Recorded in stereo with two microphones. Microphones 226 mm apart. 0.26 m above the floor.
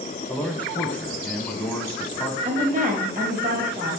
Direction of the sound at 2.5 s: 40° right (ahead or behind).